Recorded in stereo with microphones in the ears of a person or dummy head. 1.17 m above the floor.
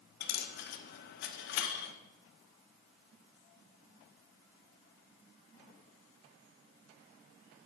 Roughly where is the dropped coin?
Left.